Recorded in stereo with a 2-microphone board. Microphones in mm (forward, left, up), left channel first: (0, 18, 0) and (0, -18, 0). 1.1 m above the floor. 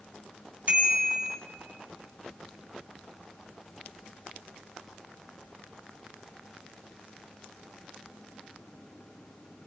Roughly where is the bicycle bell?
Right.